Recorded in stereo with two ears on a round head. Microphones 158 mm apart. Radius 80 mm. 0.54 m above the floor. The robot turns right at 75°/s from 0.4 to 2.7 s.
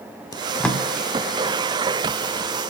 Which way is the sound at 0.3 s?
20° left (ahead or behind).